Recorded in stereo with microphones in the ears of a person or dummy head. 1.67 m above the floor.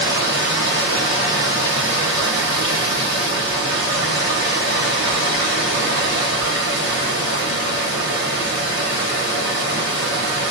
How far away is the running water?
About 1.1 m.